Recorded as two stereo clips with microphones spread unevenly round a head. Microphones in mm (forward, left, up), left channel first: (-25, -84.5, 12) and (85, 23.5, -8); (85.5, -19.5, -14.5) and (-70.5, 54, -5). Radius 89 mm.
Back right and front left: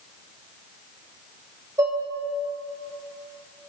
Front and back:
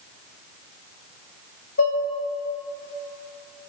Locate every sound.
1.8 s dishes clattering: 25° right, 3 m